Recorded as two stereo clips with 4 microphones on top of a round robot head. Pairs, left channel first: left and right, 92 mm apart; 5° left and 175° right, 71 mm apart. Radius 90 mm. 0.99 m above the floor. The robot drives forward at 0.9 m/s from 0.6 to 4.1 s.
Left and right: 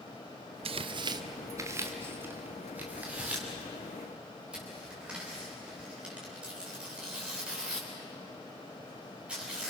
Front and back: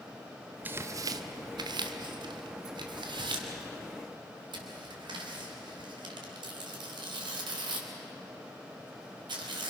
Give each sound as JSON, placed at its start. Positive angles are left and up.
{"t": 0.7, "sound": "tearing paper", "azimuth_deg": -105, "distance_m": 0.6}